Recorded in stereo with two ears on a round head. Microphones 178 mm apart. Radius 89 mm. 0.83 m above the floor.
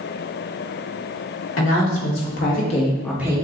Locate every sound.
1.6 s a woman speaking: 70° left (ahead or behind), 2 m; by 3.4 s 20° right (ahead or behind), 1.0 m